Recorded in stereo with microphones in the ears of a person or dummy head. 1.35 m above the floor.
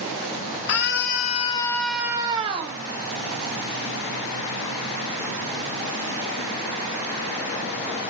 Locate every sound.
0.7 s a scream: 65° left (ahead or behind), 1.6 m; by 2.8 s 35° right (ahead or behind), 1.8 m